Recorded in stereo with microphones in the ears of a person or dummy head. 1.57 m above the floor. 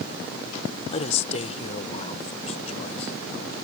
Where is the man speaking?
45° left (ahead or behind); by 3.1 s 40° left (ahead or behind).